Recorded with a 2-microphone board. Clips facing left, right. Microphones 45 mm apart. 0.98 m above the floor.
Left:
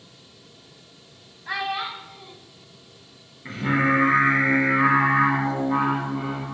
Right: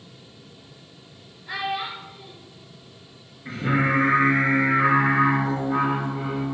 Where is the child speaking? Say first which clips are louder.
Left 1 dB; 70° left (ahead or behind), 0.9 m.